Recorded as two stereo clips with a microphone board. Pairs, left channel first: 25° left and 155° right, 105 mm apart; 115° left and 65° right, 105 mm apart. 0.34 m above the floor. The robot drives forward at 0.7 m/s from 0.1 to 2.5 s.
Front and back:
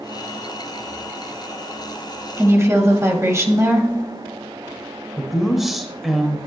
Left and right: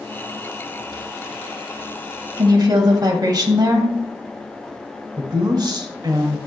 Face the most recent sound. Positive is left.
turn(degrees=-70)